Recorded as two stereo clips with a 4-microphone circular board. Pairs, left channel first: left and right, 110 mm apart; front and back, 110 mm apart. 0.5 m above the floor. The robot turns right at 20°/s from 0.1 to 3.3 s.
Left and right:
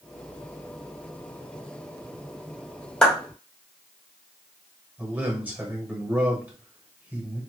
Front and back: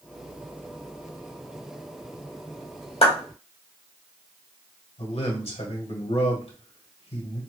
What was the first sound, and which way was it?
A clap, 10° left.